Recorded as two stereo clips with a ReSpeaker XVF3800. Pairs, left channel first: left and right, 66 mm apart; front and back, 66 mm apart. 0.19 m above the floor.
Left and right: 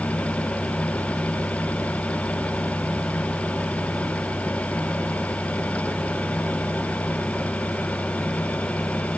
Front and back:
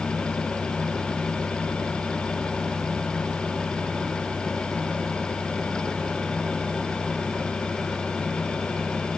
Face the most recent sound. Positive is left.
No sound to turn to.